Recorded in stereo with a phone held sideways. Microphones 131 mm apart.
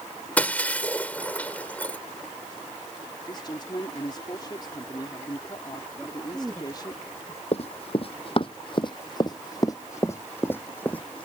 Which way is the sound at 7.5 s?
50° left (ahead or behind).